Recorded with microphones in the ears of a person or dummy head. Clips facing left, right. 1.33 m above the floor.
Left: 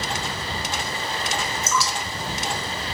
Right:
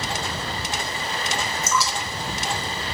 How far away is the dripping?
About 1.2 m.